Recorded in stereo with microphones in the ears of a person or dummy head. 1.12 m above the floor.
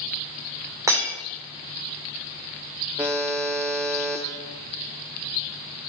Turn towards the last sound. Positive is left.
turn(degrees=-5)  # may be behind; listen again after turning